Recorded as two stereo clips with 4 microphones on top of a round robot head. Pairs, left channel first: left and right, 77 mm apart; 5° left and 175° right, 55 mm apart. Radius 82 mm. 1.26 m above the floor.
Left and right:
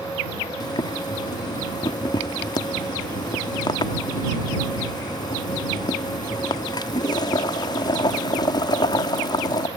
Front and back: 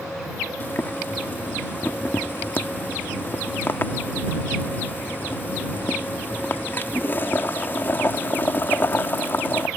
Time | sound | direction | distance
0.6 | boiling | 60° left | ?